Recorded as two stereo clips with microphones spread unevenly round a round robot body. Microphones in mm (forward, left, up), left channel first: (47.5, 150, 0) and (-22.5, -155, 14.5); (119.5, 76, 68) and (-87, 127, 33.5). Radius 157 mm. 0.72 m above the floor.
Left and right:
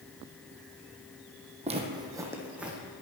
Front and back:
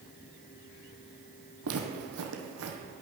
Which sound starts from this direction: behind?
Footsteps, at 1.6 s.